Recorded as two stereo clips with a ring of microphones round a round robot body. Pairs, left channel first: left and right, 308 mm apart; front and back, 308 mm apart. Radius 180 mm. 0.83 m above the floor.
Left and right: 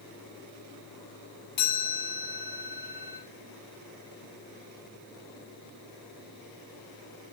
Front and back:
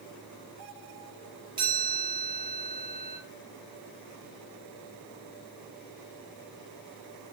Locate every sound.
1.6 s a chime: 105° left, 9 m